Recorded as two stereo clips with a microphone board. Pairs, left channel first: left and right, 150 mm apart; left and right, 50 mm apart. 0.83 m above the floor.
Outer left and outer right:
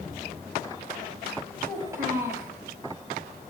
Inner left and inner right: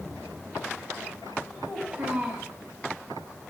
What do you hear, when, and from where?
1.6 s a child speaking: 15° right (ahead or behind), 4.5 m